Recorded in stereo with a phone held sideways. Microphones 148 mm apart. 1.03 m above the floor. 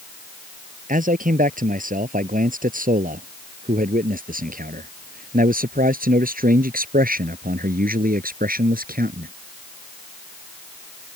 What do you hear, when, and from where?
0.9 s a man speaking: 65° right (ahead or behind); by 9.3 s 75° right (ahead or behind)